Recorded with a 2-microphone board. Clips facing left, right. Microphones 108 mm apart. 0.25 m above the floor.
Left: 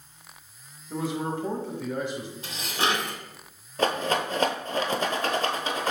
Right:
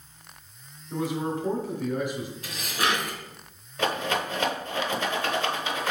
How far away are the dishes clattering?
About 0.9 m.